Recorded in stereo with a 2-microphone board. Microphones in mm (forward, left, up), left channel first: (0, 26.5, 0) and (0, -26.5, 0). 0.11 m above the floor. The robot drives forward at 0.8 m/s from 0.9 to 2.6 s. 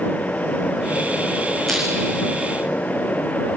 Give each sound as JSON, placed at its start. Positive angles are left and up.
{"t": 1.7, "sound": "crushing", "side_deg": 0, "distance_m": 8.5}